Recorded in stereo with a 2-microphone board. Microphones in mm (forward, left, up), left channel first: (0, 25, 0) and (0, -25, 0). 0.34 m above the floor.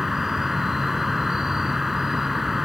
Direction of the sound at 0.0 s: 5° right (ahead or behind).